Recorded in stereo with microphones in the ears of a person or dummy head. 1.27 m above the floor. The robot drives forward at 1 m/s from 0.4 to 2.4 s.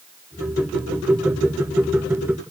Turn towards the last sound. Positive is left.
No sound to turn to.